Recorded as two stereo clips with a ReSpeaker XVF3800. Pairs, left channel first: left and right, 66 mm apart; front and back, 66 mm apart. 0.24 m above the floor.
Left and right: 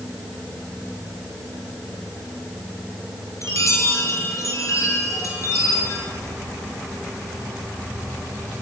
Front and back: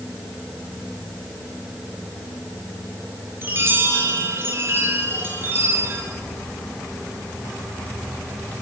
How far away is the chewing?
I don't hear chewing.